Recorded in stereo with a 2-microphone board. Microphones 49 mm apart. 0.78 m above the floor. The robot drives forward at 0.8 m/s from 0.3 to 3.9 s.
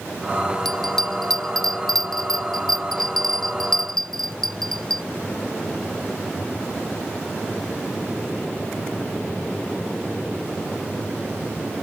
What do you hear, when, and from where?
0.7 s a bell: 10° left (ahead or behind); by 5.0 s 5° left (ahead or behind)